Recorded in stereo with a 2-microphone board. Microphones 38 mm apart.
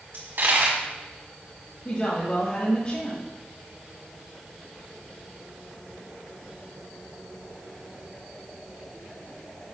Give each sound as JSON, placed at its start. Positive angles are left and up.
{"t": 0.1, "sound": "a dropped coin", "side_deg": -65, "distance_m": 2.0}
{"t": 1.9, "sound": "a woman speaking", "side_deg": 30, "distance_m": 1.4}